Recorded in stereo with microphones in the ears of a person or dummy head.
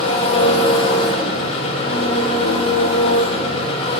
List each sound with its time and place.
0.0 s an engine running: 35° left (ahead or behind), 1.2 m